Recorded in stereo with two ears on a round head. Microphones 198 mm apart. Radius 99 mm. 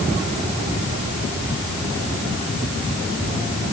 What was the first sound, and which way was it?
Only background noise.